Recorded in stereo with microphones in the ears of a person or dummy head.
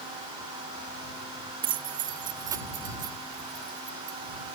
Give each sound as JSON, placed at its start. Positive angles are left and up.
{"t": 1.6, "sound": "keys jangling", "side_deg": -30}